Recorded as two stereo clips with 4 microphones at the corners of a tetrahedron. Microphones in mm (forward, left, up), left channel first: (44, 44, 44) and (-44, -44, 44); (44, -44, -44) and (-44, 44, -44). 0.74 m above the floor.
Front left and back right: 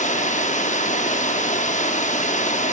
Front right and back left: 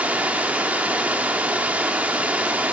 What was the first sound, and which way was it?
Running water, 55° left.